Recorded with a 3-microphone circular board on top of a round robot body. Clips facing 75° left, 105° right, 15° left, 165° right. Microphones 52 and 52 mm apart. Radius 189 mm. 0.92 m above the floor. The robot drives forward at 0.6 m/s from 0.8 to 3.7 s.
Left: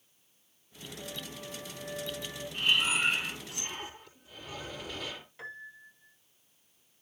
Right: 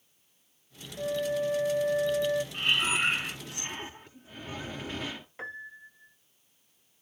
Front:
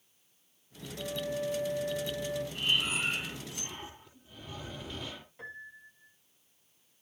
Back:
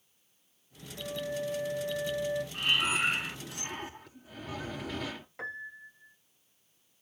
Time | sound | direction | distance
1.0 | a flute | 80° right | 2 m
2.5 | breathing | 160° right | 3.5 m
5.4 | a piano | 165° right | 2 m